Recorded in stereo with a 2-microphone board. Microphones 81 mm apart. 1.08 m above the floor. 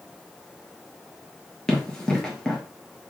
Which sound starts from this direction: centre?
Running footsteps, at 1.7 s.